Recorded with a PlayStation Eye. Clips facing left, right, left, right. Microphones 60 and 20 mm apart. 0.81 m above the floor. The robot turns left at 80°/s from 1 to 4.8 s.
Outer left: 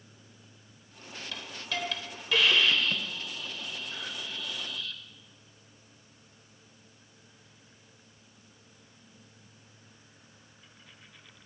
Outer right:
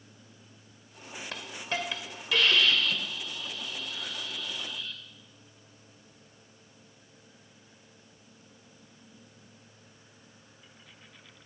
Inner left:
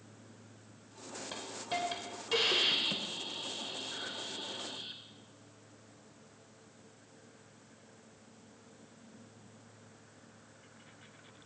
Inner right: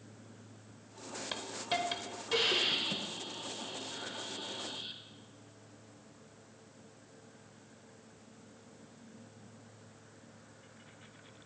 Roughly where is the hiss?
Right.